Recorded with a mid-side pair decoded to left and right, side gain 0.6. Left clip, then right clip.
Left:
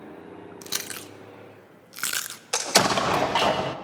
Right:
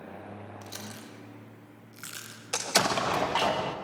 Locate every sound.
0.6 s chewing: 60° left, 0.6 m
2.5 s an explosion: 25° left, 0.7 m